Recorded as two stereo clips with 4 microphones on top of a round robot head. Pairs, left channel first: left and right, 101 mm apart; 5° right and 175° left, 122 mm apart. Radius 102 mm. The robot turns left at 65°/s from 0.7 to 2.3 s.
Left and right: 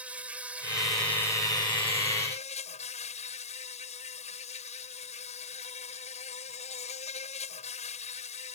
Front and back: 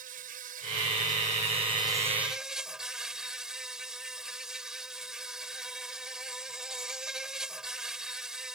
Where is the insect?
165° right; by 8.6 s 90° left.